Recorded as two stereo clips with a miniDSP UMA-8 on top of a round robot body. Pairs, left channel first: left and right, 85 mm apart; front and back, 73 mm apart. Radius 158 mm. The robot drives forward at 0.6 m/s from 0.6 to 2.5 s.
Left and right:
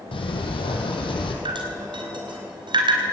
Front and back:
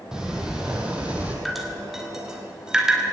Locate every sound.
0.1 s a sliding door: 100° left, 3 m; by 1.4 s 105° left, 3 m
1.4 s dripping: 90° right, 4 m; by 3.0 s 100° right, 4 m